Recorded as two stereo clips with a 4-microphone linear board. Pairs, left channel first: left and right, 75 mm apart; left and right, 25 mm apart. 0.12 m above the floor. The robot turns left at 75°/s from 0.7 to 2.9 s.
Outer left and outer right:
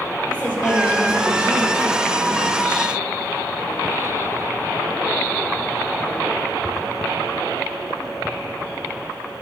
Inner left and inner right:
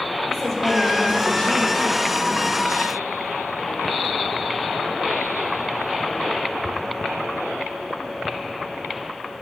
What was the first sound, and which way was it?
A woman speaking, 165° left.